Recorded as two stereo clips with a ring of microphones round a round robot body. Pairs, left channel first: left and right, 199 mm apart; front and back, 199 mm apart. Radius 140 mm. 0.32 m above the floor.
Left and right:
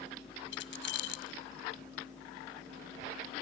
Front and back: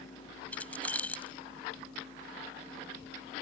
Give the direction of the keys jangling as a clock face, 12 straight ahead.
9 o'clock.